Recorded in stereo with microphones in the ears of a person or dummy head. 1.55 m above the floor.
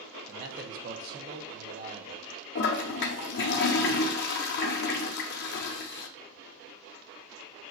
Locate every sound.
0.3 s a man speaking: 55° right (ahead or behind), 1.1 m
2.5 s a toilet flushing: 55° left (ahead or behind), 0.7 m